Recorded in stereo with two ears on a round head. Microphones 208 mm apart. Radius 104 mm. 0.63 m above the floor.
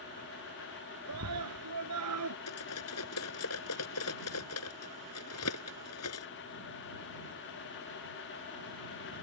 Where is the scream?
85° right.